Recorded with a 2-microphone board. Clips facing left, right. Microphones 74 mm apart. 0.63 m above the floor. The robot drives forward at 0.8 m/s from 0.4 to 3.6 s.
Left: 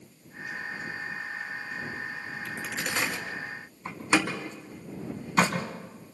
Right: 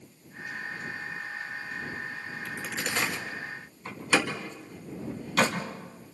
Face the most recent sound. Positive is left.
turn(degrees=20)  # may be behind; listen again after turning